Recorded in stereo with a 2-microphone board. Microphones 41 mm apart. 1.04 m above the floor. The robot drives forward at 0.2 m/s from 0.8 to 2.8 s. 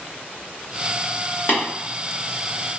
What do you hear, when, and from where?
1.5 s tapping: 50° left (ahead or behind), 1.4 m